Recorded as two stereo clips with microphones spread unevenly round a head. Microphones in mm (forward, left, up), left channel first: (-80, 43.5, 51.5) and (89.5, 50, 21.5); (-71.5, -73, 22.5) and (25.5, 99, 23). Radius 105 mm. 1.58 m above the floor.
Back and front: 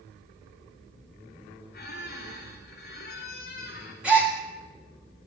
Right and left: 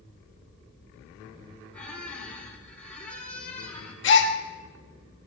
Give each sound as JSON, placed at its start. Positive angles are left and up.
{"t": 1.7, "sound": "a squeak", "azimuth_deg": 155, "distance_m": 8.0}
{"t": 4.0, "sound": "a gasp", "azimuth_deg": -90, "distance_m": 1.6}